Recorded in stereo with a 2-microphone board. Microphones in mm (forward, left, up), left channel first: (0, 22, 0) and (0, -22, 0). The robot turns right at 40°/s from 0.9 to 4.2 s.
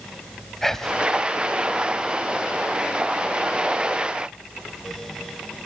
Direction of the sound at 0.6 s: 10° left (ahead or behind).